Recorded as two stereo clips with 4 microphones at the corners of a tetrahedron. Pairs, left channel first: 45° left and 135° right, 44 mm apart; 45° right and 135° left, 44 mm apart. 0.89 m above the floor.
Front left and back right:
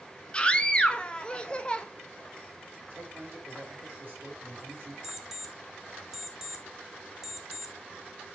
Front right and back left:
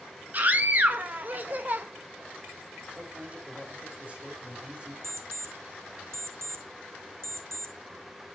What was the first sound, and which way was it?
A scream, 105° left.